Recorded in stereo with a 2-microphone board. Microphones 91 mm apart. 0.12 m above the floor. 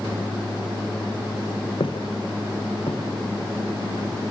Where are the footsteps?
65° left (ahead or behind), 0.9 m; by 4.1 s 90° left, 3.5 m.